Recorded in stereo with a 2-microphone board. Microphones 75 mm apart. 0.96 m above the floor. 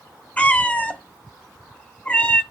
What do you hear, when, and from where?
0.4 s a cat meowing: 15° left (ahead or behind), 0.7 m